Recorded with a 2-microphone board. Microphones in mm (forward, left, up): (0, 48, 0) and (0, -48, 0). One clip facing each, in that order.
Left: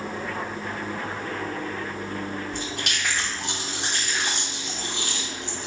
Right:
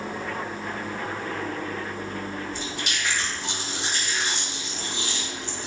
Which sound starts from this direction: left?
Chewing, at 2.5 s.